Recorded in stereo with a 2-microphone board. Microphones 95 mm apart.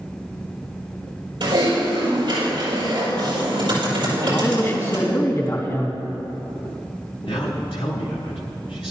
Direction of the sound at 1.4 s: 50° right (ahead or behind).